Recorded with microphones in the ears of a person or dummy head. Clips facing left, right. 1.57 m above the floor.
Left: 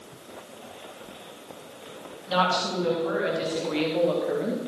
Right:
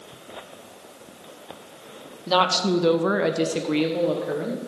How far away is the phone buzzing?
No phone buzzing in this recording.